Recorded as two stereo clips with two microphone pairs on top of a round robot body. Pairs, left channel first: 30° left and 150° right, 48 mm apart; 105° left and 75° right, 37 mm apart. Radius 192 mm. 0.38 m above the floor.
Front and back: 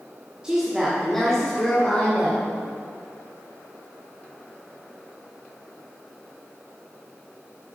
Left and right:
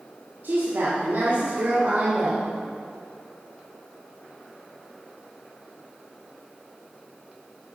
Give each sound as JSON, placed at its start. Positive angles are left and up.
{"t": 0.4, "sound": "a woman speaking", "azimuth_deg": -80, "distance_m": 1.9}